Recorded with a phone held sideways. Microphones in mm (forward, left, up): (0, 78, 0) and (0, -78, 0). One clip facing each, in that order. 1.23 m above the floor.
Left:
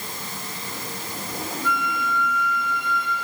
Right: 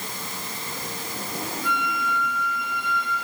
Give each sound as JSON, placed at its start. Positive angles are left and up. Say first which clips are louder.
{"t": 1.6, "sound": "a flute", "louder": "left 2 dB", "side_deg": -75, "distance_m": 5.5}